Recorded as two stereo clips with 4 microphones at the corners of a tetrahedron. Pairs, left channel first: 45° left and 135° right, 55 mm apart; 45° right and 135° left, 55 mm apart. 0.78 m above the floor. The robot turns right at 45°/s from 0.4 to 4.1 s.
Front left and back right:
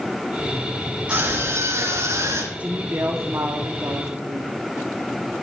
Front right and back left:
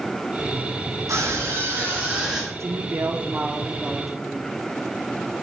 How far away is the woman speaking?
About 1.5 m.